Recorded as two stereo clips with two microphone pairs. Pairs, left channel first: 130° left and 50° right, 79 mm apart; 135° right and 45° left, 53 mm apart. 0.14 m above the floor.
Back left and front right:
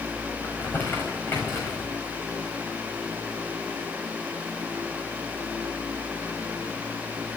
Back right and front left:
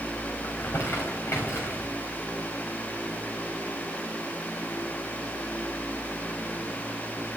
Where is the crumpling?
170° right, 5 m.